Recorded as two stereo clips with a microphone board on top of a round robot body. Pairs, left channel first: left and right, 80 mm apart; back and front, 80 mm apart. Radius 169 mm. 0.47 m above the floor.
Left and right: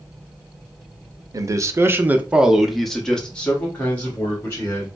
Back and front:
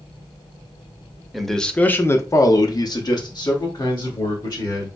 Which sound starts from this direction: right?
A man speaking, at 1.3 s.